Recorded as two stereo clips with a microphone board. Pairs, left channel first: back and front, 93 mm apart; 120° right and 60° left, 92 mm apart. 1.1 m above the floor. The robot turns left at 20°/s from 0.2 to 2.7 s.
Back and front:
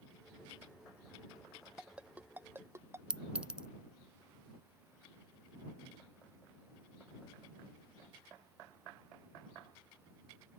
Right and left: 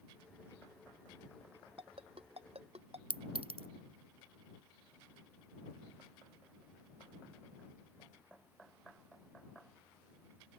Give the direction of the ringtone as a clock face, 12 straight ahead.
9 o'clock.